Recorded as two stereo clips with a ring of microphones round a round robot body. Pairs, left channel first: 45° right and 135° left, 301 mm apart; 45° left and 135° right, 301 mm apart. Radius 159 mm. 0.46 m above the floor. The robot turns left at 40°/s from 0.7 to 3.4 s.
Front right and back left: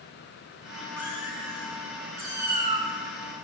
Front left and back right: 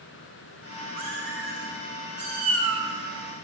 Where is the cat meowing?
125° right, 9.5 m; by 2.9 s 155° left, 9.5 m.